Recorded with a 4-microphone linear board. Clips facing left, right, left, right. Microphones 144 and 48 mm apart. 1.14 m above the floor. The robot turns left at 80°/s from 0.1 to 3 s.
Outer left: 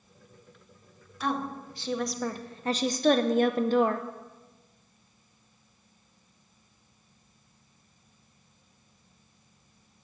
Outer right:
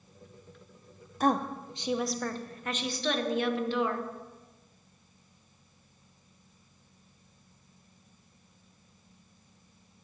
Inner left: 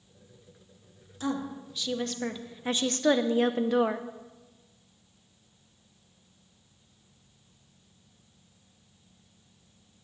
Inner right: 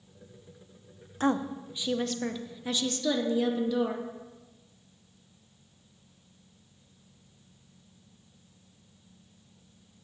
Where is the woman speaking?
105° right, 0.7 m; by 4.1 s 110° left, 0.7 m.